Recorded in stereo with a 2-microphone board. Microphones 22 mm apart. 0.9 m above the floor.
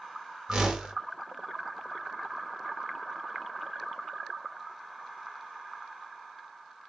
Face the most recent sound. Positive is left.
turn(degrees=-35)  # may be behind; listen again after turning